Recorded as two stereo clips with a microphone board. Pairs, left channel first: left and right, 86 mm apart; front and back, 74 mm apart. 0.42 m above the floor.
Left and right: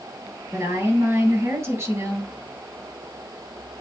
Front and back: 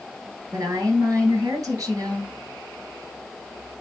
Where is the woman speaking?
145° right, 3.5 m.